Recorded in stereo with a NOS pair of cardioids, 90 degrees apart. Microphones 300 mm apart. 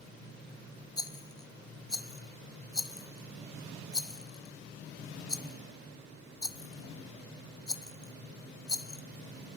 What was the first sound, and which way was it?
A rattle, 15° left.